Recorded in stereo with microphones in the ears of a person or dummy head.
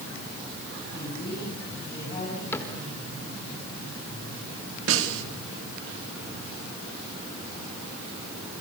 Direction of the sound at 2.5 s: 10° left (ahead or behind).